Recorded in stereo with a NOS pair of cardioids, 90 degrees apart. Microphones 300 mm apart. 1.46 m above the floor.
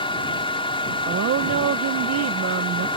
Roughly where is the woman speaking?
Ahead right.